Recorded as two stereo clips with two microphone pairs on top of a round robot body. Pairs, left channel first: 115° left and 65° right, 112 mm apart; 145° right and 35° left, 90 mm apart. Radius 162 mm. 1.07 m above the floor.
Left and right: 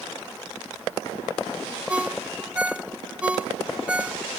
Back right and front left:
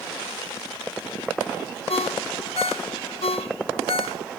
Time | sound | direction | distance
1.9 | a ringtone | 145° right | ?